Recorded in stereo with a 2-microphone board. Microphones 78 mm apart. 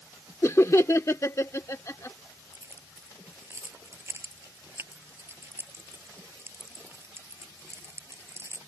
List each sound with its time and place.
0.4 s laughter: 40° left (ahead or behind)
2.5 s keys jangling: 35° right (ahead or behind)